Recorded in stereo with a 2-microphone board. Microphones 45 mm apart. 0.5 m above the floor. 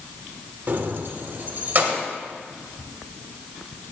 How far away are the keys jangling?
About 1.0 m.